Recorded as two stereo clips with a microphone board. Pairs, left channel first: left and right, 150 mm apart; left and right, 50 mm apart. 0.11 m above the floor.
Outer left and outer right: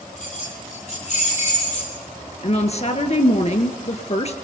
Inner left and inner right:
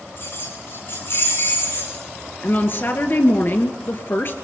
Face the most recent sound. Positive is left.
turn(degrees=50)  # may be behind; listen again after turning